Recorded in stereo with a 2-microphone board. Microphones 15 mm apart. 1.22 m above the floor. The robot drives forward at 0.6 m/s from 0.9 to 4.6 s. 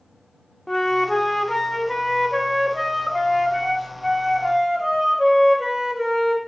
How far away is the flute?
About 0.7 m.